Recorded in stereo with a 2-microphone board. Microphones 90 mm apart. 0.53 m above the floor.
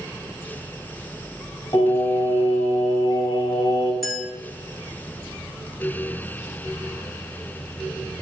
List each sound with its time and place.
1.7 s singing: 35° left (ahead or behind), 1.2 m
4.0 s a clink: 5° left (ahead or behind), 0.7 m